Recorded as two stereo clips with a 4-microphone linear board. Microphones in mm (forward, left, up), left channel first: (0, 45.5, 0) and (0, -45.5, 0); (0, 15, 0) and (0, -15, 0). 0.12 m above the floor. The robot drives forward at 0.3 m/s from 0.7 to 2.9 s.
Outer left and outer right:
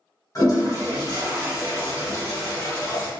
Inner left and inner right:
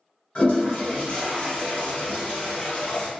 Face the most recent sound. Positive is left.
turn(degrees=35)  # may be behind; listen again after turning